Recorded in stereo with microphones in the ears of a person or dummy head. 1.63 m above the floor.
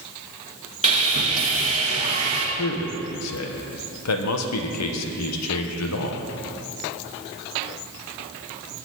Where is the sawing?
35° right (ahead or behind), 1.6 m.